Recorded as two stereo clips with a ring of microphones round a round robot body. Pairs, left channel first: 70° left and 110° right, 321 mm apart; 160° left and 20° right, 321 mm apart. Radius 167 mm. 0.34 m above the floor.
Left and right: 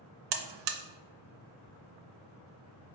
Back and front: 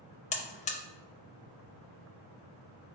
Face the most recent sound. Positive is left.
turn(degrees=-135)